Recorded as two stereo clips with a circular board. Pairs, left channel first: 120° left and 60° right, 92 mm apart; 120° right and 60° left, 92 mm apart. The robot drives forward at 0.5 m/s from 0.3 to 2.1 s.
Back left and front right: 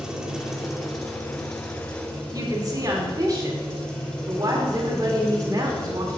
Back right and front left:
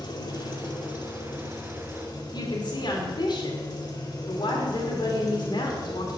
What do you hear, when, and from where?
0.0 s an engine running: 145° right, 1.1 m; by 6.2 s 160° right, 1.8 m
2.3 s a woman speaking: 100° right, 1.9 m